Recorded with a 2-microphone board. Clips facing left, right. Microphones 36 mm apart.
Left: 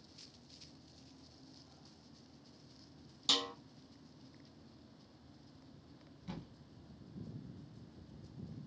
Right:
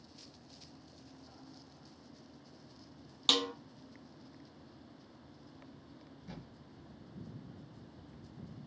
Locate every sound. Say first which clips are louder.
3.3 s a snare drum: right 4 dB; 50° right (ahead or behind), 0.5 m
6.3 s a thud: left 3 dB; 50° left (ahead or behind), 1.3 m